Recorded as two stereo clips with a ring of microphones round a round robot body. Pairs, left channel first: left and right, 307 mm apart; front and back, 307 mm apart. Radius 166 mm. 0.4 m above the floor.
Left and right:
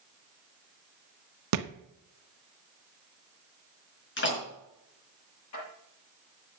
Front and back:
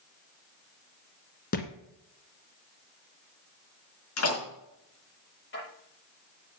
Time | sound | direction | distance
1.5 | a thud | 65° right | 1.1 m
4.2 | a door slam | 40° left | 5 m
5.5 | dishes clattering | 50° left | 7 m